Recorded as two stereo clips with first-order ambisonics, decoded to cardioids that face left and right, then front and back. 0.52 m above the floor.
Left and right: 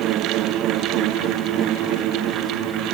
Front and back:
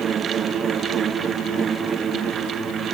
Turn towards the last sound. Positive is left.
No sound to turn to.